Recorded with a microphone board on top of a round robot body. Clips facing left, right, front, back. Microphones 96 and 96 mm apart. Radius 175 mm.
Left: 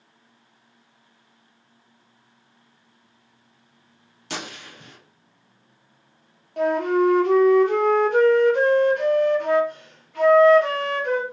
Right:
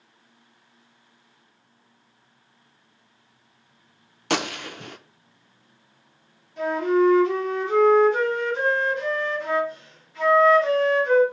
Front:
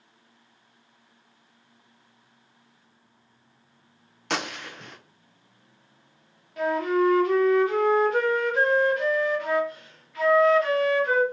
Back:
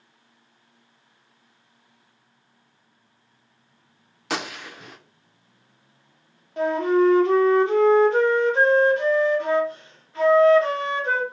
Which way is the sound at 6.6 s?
120° left.